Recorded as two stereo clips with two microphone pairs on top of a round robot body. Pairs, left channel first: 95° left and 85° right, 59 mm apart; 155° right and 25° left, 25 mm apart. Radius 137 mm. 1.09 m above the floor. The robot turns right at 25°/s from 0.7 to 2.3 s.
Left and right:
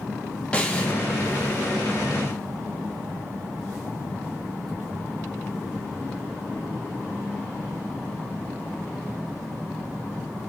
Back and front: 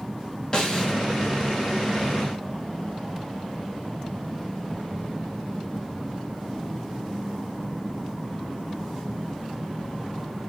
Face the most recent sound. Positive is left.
turn(degrees=-165)